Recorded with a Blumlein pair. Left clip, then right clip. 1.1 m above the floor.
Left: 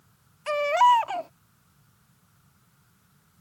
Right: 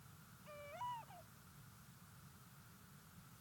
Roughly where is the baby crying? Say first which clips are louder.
Left 30 dB; ahead left.